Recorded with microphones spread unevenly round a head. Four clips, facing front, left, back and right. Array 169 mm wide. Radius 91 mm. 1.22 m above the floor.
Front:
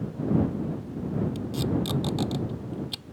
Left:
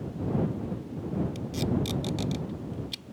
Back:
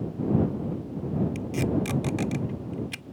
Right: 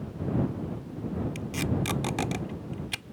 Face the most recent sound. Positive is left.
turn(degrees=-75)